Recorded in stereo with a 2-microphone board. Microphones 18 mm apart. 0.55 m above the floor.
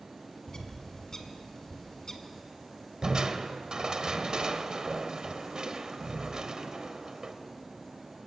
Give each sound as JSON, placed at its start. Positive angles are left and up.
{"t": 0.5, "sound": "a bird", "side_deg": 30, "distance_m": 1.9}
{"t": 3.0, "sound": "crushing", "side_deg": -45, "distance_m": 1.2}